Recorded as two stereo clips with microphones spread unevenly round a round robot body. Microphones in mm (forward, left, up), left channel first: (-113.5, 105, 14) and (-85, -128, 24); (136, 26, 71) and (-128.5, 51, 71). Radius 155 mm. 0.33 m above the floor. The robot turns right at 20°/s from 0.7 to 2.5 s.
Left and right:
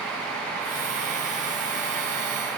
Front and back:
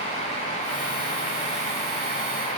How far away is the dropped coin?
No dropped coin in this recording.